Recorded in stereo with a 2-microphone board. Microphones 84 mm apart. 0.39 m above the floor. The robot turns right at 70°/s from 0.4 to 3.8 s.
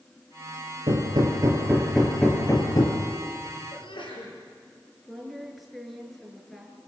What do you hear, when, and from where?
0.9 s hammering: 80° right, 4.5 m; by 3.0 s 70° left, 4.5 m
3.7 s a sneeze: 75° left (ahead or behind), 7 m; by 4.3 s 70° left (ahead or behind), 7 m
5.0 s a woman speaking: centre (ahead or behind), 5 m